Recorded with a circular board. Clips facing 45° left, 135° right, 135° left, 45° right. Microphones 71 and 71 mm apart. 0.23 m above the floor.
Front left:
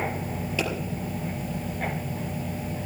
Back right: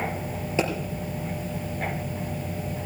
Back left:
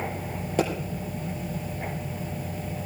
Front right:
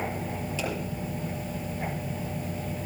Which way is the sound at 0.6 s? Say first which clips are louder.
Back right 4 dB, back left 9 dB; 160° left.